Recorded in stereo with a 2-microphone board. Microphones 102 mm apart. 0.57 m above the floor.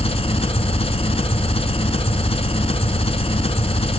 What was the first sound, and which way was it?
An engine running, 75° left (ahead or behind).